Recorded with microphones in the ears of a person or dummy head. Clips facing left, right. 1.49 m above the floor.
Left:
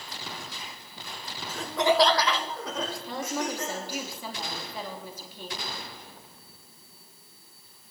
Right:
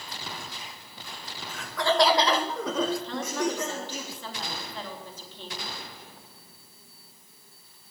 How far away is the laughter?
About 1.2 m.